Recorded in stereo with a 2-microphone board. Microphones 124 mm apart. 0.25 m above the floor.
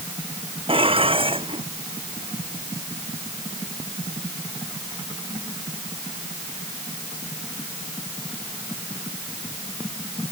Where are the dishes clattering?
45° right (ahead or behind).